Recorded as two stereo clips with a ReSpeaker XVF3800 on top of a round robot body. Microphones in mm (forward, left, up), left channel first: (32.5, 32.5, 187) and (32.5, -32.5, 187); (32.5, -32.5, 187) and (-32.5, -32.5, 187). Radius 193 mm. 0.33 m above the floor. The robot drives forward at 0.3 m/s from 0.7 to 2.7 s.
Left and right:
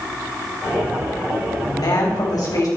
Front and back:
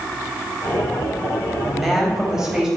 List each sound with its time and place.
1.6 s a woman speaking: 95° left, 3.5 m; by 2.7 s 100° left, 3.5 m